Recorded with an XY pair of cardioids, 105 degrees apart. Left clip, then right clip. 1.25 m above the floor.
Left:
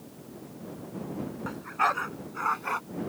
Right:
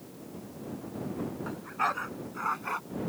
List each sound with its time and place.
1.4 s a dog barking: 30° left; by 2.8 s 20° left